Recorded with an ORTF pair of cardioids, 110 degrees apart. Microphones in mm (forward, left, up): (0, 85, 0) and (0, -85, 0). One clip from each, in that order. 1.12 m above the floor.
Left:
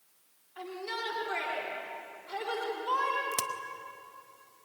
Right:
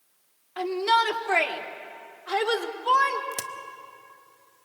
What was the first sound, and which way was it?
A shout, 70° right.